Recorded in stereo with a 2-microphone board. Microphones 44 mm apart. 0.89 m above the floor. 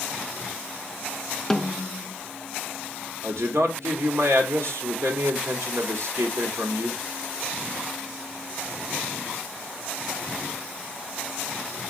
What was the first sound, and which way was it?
A snare drum, 5° left (ahead or behind).